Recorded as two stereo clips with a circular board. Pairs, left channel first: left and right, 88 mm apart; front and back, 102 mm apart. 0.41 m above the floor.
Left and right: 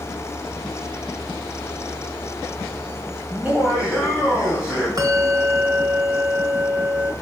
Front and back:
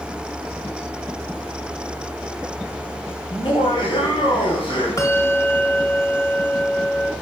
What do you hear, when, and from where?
3.3 s laughter: 20° right, 2.5 m; by 4.9 s 5° right, 3 m
5.0 s a bell: 55° right, 1.2 m